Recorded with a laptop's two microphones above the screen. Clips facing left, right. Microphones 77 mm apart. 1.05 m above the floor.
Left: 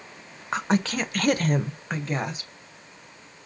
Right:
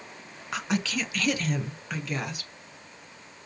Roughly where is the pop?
No pop in this recording.